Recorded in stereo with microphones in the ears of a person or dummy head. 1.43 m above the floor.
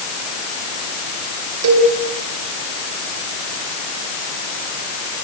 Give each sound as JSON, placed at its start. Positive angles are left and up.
{"t": 1.6, "sound": "a cowbell", "side_deg": -80, "distance_m": 4.5}